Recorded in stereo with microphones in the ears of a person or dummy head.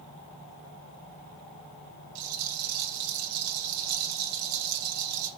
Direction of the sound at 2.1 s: 80° right.